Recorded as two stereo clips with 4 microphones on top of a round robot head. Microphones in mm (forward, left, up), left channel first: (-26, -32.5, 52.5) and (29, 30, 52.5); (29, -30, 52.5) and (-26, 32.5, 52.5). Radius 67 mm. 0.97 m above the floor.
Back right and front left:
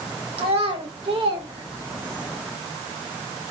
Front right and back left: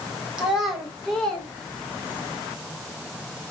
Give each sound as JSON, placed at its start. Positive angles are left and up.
{"t": 0.4, "sound": "a child speaking", "azimuth_deg": 50, "distance_m": 1.7}